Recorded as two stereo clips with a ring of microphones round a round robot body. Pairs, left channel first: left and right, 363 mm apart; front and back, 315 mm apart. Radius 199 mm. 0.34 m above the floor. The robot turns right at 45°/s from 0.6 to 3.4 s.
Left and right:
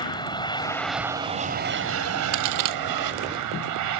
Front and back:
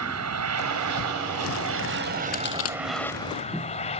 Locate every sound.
0.0 s an aircraft: 165° left; by 4.0 s 70° right
2.3 s a crack: 65° right; by 2.8 s 50° right